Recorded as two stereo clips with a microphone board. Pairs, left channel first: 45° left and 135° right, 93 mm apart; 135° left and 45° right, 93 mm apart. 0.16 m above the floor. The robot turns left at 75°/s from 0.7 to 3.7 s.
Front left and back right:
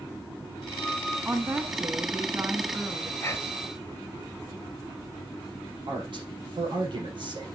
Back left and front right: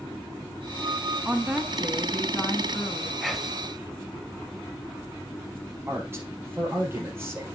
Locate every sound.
1.2 s a woman speaking: 85° right, 1.1 m; by 3.1 s 140° left, 1.1 m
3.2 s whispering: 50° left, 1.1 m; by 3.7 s 15° left, 1.1 m
5.9 s a man speaking: 110° right, 4 m